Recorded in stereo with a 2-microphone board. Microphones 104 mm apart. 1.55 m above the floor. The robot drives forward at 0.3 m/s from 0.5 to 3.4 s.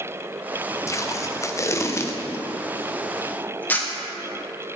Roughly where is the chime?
I don't hear a chime.